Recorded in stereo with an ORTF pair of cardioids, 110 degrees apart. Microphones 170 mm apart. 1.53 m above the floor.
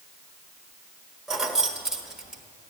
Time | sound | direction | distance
1.3 | keys jangling | 5° right | 1.4 m